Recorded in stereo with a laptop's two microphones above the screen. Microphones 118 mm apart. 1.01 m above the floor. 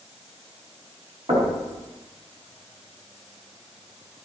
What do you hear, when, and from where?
1.3 s knocking: 65° right (ahead or behind), 5 m